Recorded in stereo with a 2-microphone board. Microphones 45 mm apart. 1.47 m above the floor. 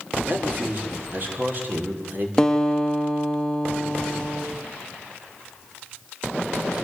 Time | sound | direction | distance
0.3 | a man speaking | 45° right (ahead or behind) | 5.5 m
2.4 | a guitar | 15° left (ahead or behind) | 1.9 m